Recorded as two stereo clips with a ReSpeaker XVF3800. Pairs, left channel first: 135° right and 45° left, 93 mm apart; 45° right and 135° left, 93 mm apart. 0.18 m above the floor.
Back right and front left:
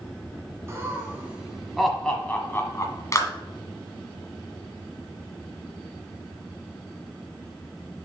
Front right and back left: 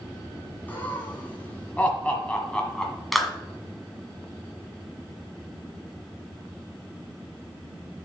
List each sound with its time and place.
0.7 s laughter: 10° left, 1.6 m; by 3.0 s 125° right, 1.6 m
3.1 s a clap: 135° right, 1.5 m